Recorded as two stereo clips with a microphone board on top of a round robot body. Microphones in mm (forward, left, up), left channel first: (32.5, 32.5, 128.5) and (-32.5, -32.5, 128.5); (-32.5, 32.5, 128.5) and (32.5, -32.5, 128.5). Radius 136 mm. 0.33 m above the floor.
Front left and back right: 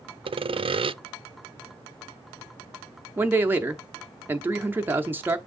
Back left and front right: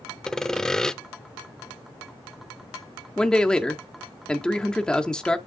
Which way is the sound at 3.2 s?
155° right.